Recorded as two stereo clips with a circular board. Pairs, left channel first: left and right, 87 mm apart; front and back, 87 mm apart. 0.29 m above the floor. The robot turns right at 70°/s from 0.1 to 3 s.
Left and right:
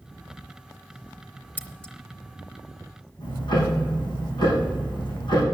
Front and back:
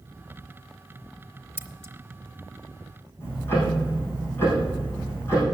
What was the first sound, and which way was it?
Scissors, 140° left.